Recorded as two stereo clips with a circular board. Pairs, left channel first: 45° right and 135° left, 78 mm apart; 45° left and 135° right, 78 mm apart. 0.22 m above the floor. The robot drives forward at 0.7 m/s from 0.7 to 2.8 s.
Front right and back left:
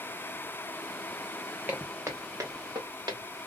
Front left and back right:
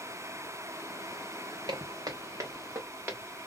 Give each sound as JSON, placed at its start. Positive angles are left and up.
{"t": 1.7, "sound": "footsteps", "azimuth_deg": -160, "distance_m": 0.8}